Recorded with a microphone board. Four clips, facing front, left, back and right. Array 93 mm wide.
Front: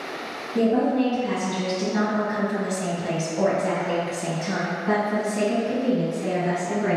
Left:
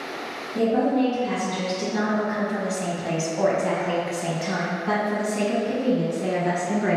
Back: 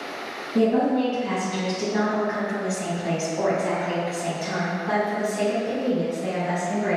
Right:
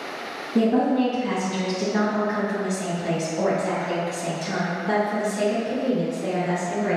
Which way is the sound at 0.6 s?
120° right.